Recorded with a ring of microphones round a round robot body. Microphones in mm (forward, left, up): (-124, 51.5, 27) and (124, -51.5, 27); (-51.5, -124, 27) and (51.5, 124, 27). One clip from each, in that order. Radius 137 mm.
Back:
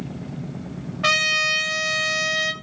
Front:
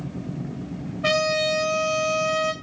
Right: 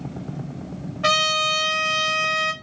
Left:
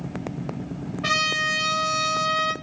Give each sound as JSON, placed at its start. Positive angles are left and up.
{"t": 1.0, "sound": "a trumpet", "azimuth_deg": 180, "distance_m": 0.9}